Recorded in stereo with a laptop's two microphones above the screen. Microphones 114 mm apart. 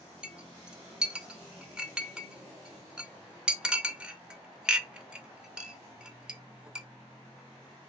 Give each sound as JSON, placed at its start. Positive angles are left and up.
{"t": 0.2, "sound": "a clink", "side_deg": -10, "distance_m": 0.5}